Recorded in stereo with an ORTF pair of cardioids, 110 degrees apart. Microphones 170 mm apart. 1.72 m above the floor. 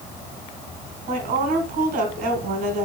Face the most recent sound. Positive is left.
turn(degrees=-70)